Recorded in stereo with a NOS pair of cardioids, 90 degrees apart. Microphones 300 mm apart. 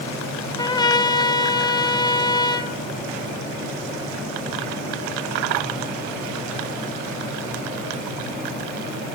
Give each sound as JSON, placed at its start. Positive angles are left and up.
{"t": 0.6, "sound": "a trumpet", "azimuth_deg": 15, "distance_m": 0.8}